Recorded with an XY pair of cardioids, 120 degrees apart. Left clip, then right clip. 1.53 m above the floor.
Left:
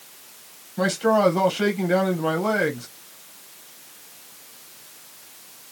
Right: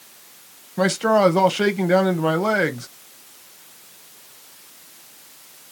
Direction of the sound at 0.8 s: 35° right.